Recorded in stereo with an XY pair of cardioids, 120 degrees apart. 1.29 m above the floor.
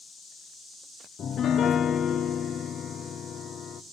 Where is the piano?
45° left, 0.6 m.